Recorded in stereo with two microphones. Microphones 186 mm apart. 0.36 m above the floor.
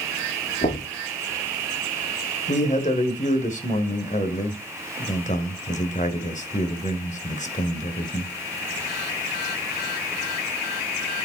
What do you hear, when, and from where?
0.6 s knocking: 55° left (ahead or behind), 6 m
2.5 s a man speaking: 40° left (ahead or behind), 1.7 m